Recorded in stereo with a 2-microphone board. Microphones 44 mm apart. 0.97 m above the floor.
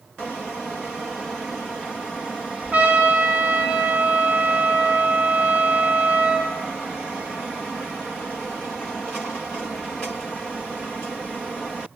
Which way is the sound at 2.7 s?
30° right (ahead or behind).